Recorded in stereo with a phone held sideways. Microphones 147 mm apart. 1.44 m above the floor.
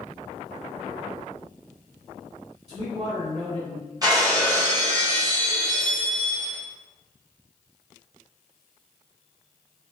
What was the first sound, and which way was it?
A man speaking, 45° right (ahead or behind).